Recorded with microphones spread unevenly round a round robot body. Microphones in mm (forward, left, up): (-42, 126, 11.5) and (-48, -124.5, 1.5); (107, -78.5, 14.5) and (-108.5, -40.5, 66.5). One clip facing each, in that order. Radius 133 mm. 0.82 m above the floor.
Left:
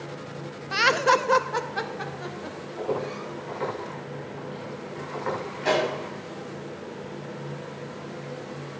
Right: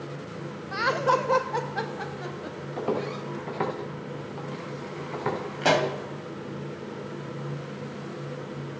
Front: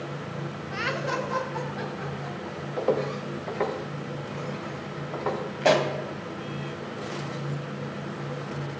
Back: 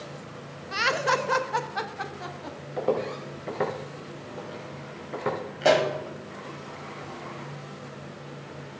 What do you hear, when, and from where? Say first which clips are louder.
0.7 s laughter: left 2 dB, back 3 dB; 120° left, 0.7 m; by 2.6 s 175° right, 1.4 m
2.8 s footsteps: even, front 1 dB; 100° right, 3.5 m; by 5.4 s 125° right, 3.5 m
5.6 s a pop: right 1 dB, back 1 dB; 110° right, 1.9 m